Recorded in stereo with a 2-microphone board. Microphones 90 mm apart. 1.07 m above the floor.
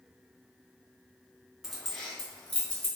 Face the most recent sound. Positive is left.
turn(degrees=15)  # may be behind; listen again after turning